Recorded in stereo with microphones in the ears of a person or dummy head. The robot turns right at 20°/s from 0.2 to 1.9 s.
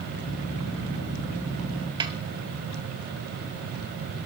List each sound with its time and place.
2.0 s a snare drum: 25° right (ahead or behind), 1.0 m